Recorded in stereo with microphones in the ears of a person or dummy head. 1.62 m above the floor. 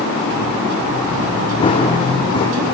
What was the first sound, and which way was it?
Running footsteps, 25° left (ahead or behind).